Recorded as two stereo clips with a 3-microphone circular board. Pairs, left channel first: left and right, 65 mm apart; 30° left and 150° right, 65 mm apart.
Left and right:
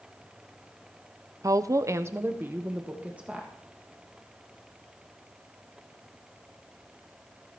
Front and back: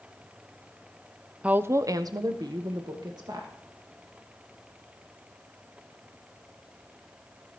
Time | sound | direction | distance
1.4 | a woman speaking | 80° right | 0.5 m